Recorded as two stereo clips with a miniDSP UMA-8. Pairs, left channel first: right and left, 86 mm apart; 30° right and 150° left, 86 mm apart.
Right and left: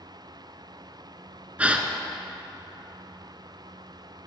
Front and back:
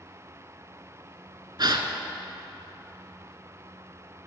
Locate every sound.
1.6 s a gasp: 160° left, 0.6 m